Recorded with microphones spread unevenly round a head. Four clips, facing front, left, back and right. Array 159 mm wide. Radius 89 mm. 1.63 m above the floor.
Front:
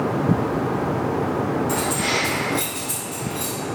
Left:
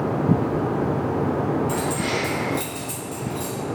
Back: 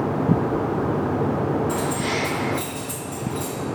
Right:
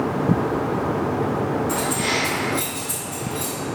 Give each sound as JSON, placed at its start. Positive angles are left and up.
{"t": 1.7, "sound": "keys jangling", "azimuth_deg": 65, "distance_m": 1.7}